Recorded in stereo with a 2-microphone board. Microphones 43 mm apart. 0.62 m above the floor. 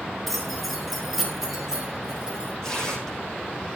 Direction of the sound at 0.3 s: 5° left (ahead or behind).